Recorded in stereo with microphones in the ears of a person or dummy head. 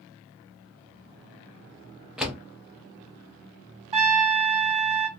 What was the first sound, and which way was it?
A door slam, centre (ahead or behind).